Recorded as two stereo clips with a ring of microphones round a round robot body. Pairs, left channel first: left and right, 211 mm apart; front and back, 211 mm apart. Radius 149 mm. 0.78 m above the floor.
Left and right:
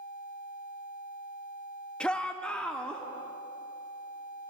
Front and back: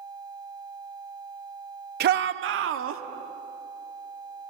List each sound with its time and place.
2.0 s a shout: 175° left, 0.9 m